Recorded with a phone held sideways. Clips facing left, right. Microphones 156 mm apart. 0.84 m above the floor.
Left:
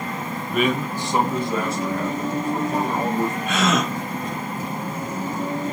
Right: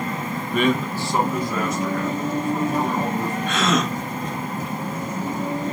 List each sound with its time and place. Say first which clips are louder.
0.5 s a man speaking: right 1 dB; centre (ahead or behind), 0.7 m; by 3.4 s 40° left (ahead or behind), 2 m
3.5 s a gasp: right 2 dB; 5° left (ahead or behind), 1.4 m